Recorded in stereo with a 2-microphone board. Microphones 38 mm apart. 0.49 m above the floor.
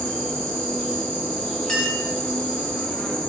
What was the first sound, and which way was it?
An insect, 20° left (ahead or behind).